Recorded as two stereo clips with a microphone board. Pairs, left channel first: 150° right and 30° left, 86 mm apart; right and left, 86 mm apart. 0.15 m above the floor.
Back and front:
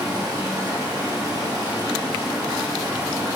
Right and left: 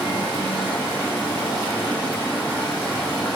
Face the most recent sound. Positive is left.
turn(degrees=-20)